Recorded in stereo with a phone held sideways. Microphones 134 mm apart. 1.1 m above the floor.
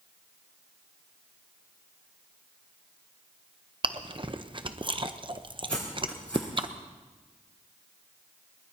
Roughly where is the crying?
I don't hear crying.